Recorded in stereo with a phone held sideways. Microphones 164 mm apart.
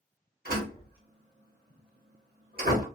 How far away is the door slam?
About 1.2 m.